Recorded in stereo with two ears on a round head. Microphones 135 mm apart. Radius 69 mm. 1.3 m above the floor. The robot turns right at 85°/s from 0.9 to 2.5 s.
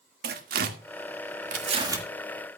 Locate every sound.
0.2 s tearing paper: 70° right (ahead or behind), 1.9 m; by 2.1 s 10° right (ahead or behind), 1.9 m